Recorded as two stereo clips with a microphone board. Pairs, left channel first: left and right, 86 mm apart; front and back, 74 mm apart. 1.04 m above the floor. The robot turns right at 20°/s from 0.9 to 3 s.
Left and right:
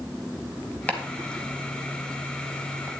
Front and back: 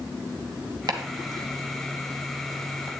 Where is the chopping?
160° left, 1.8 m; by 3.0 s 155° right, 1.8 m.